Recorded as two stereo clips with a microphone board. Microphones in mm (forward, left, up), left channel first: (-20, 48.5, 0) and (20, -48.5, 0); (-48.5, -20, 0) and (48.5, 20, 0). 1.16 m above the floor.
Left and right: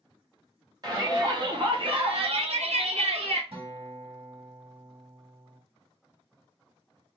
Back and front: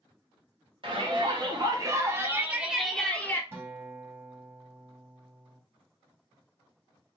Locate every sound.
0.8 s a shout: 15° right, 1.6 m; by 3.4 s 90° right, 0.9 m
3.5 s a guitar: 45° right, 1.9 m